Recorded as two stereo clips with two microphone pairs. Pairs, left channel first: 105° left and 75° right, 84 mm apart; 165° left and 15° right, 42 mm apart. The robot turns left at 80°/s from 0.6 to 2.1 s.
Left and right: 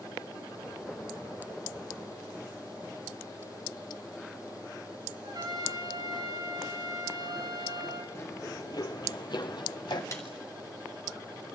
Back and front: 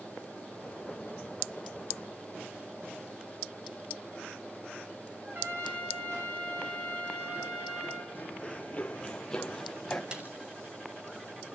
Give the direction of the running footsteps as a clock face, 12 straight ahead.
7 o'clock.